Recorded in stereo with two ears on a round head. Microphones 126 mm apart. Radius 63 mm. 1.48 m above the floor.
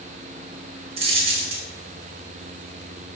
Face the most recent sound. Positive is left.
turn(degrees=-40)  # may be behind; listen again after turning